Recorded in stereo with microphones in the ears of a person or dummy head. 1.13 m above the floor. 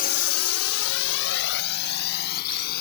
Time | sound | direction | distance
0.0 | a drone | 40° left (ahead or behind) | ?